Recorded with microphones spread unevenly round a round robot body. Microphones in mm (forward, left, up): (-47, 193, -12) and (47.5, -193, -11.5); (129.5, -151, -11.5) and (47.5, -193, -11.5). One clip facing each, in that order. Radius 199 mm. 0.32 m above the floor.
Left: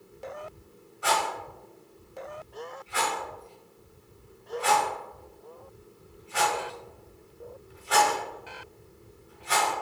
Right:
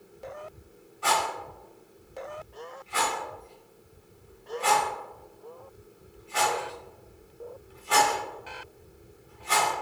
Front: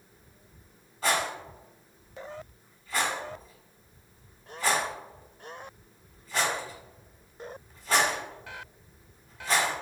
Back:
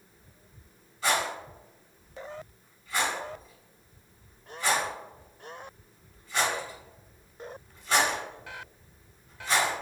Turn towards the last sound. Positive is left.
turn(degrees=5)